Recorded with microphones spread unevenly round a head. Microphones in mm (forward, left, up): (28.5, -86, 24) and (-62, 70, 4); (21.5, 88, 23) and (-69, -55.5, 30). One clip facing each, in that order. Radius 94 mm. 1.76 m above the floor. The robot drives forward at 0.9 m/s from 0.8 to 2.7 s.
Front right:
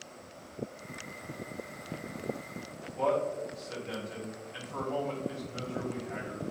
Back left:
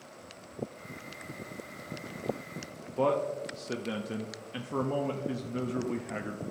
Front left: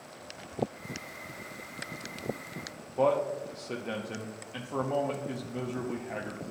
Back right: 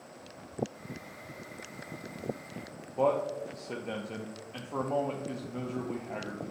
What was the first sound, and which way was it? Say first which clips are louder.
A man speaking: back left 1 dB, front left 1 dB; 145° left.